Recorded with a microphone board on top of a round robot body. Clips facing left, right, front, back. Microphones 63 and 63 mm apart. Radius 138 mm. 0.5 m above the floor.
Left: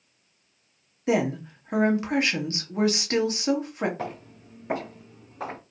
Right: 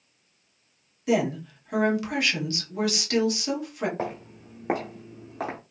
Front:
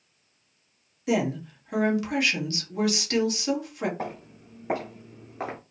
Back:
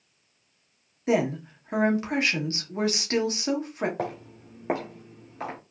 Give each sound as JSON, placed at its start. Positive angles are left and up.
{"t": 1.1, "sound": "a woman speaking", "azimuth_deg": 135, "distance_m": 1.3}
{"t": 4.0, "sound": "footsteps", "azimuth_deg": -150, "distance_m": 1.1}